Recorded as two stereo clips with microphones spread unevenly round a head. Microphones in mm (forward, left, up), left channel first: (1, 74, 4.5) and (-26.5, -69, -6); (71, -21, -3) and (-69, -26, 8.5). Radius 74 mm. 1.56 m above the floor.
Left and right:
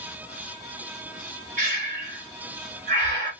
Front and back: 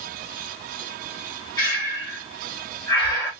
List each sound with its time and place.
1.6 s breathing: 60° right, 2 m